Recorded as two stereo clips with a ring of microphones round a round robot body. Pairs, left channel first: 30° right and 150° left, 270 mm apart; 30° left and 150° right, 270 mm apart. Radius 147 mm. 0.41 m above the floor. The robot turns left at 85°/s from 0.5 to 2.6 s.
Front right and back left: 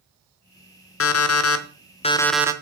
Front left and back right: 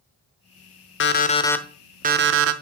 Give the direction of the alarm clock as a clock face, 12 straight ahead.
12 o'clock.